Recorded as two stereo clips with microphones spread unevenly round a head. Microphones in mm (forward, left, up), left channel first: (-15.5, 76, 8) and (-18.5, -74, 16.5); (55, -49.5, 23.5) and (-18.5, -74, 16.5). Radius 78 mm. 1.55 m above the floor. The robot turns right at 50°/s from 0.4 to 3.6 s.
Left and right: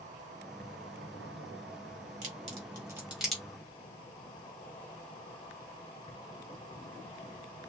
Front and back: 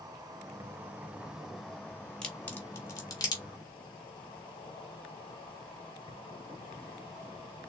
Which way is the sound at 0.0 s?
130° right.